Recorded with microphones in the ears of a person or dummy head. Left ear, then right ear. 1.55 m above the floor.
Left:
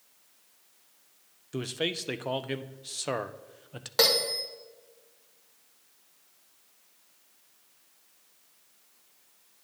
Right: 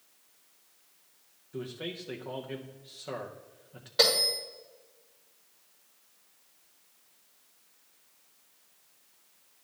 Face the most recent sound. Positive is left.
turn(degrees=40)  # may be behind; listen again after turning